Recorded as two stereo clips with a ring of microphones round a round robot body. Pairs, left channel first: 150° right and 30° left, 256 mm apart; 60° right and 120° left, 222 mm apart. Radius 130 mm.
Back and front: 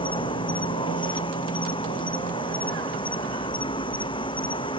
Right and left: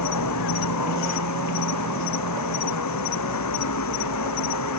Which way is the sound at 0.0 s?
75° right.